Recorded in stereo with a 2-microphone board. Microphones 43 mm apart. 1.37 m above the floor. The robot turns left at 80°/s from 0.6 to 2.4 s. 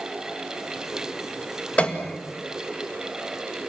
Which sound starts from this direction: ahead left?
A piano, at 1.8 s.